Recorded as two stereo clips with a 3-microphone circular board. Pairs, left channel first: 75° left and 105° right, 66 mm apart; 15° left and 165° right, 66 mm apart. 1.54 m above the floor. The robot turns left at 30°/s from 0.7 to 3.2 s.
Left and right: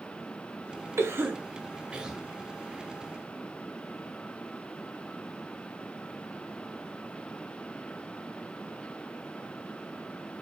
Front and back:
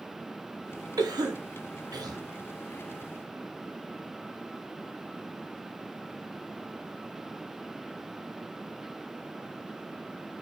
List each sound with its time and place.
1.0 s a cough: 150° right, 0.6 m; by 2.2 s 170° left, 0.6 m